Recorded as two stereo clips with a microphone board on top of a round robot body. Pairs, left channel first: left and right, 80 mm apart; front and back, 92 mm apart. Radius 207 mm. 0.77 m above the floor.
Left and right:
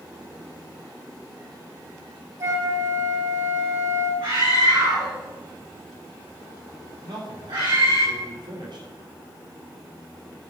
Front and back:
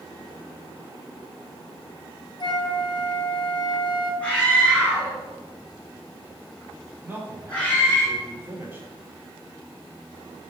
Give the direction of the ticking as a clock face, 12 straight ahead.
I don't hear ticking.